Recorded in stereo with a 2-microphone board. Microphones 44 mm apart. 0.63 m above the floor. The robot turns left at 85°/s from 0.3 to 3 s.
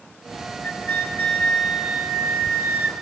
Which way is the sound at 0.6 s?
85° left.